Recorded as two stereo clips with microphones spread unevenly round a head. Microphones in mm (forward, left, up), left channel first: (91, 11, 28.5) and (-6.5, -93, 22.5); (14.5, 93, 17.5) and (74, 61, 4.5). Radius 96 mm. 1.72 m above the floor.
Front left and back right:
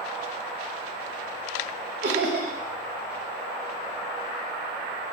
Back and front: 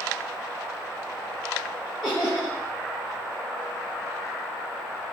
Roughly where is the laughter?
Behind right.